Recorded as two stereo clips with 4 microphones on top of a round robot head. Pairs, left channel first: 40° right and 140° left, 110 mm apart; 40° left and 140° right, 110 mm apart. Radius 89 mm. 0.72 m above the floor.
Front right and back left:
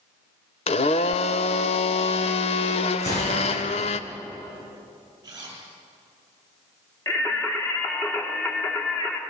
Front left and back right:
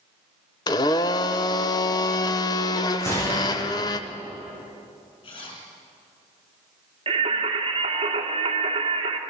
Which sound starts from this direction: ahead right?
A gunshot, at 3.0 s.